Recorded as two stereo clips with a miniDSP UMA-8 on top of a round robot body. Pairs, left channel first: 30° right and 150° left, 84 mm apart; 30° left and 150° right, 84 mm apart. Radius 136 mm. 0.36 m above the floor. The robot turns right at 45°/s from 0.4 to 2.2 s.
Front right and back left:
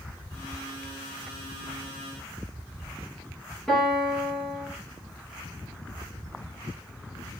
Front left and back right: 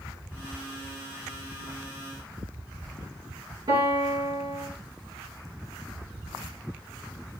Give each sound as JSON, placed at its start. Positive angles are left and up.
{"t": 3.7, "sound": "a piano", "azimuth_deg": -115, "distance_m": 4.5}